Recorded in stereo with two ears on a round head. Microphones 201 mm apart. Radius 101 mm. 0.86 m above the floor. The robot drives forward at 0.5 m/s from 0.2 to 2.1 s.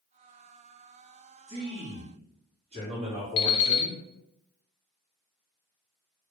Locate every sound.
1.5 s a man speaking: 30° right (ahead or behind), 1.3 m; by 4.0 s 25° right (ahead or behind), 1.5 m
3.4 s an alarm clock: 65° left (ahead or behind), 0.7 m